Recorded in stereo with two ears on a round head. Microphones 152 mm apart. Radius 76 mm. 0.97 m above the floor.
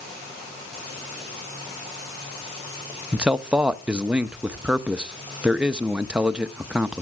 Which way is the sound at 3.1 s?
5° right (ahead or behind).